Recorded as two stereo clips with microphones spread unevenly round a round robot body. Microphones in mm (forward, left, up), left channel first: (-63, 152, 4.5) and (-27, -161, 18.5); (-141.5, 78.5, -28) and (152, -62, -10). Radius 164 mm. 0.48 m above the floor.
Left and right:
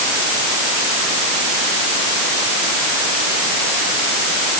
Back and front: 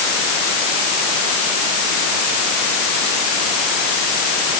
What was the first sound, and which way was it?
Only background noise.